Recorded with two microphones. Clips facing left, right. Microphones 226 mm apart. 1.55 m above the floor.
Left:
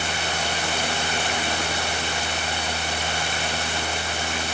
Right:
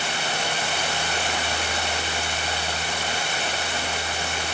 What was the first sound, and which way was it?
Only background noise.